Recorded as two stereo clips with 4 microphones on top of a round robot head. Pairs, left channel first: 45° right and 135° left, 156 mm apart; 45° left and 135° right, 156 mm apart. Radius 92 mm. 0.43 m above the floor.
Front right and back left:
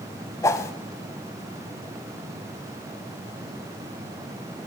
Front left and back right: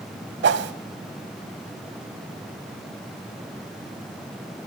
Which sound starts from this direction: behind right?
A whoosh, at 0.4 s.